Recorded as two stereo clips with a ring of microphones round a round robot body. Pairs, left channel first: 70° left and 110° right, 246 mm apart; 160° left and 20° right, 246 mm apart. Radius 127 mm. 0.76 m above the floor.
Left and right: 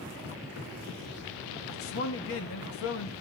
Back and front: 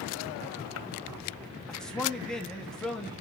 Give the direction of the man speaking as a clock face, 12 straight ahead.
10 o'clock.